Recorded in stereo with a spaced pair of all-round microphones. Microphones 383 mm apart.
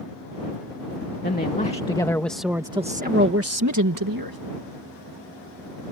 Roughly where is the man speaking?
Left.